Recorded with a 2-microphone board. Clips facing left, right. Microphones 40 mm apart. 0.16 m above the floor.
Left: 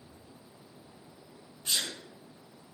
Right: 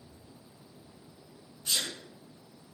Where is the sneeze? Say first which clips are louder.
Even; 35° left (ahead or behind), 1.6 m.